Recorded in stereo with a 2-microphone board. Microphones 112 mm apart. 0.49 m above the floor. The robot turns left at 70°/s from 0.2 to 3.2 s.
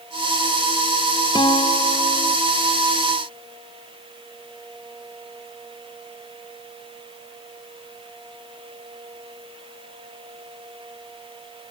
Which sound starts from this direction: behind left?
A guitar, at 1.4 s.